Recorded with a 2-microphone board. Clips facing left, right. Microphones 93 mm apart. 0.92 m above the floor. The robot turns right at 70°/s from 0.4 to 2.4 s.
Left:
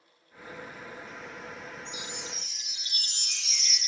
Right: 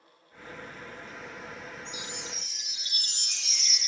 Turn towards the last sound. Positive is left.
turn(degrees=-175)